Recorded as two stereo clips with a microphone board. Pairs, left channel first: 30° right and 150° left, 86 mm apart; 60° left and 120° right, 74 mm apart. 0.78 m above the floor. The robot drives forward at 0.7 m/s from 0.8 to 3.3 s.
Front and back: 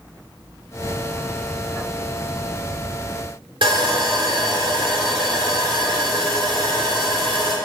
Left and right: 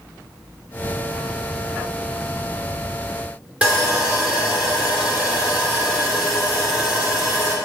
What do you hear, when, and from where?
3.6 s sawing: 170° left, 2 m